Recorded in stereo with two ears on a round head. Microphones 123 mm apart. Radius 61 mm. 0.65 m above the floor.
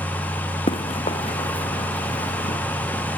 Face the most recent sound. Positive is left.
turn(degrees=50)  # may be behind; listen again after turning